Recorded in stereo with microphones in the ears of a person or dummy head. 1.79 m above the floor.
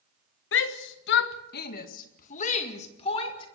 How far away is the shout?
About 1.6 m.